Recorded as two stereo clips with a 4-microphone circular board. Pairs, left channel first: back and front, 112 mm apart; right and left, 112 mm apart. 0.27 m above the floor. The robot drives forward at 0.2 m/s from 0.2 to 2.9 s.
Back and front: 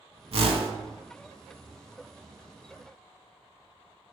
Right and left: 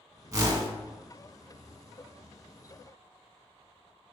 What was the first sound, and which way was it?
A whoosh, 30° left.